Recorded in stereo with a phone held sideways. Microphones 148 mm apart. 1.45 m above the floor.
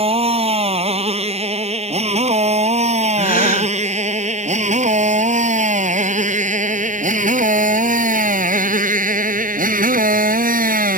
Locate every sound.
0.0 s a motorcycle: 40° right (ahead or behind); by 11.0 s 75° right (ahead or behind)
3.2 s a gasp: 80° left